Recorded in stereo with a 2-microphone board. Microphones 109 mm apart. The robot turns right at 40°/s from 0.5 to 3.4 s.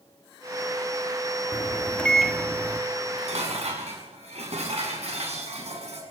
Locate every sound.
1.5 s a microwave: 150° left, 1.7 m; by 2.8 s 160° right, 1.7 m
3.0 s dishes clattering: 60° right (ahead or behind), 7 m; by 6.0 s 75° right (ahead or behind), 7 m